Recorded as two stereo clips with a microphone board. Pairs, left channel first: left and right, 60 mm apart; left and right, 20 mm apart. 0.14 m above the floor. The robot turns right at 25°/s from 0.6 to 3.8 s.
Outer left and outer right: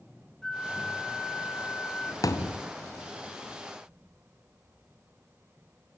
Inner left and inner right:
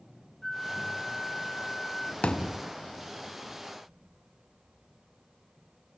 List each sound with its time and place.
0.4 s a flute: 10° left (ahead or behind), 1.7 m; by 2.1 s 20° left (ahead or behind), 1.7 m
2.2 s a thud: 70° left (ahead or behind), 2 m; by 2.6 s 80° left, 2 m